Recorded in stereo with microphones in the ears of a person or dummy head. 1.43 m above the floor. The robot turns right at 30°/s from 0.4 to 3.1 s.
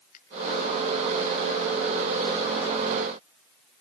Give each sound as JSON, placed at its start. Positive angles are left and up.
{"t": 0.1, "sound": "a finger snap", "side_deg": 45, "distance_m": 3.5}